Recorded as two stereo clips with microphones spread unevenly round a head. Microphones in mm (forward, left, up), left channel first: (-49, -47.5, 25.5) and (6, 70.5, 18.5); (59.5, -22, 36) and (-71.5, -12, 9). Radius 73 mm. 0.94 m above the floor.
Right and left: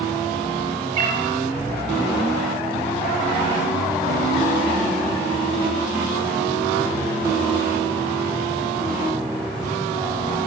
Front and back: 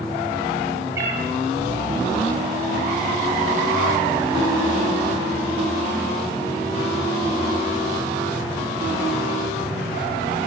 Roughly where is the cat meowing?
Left.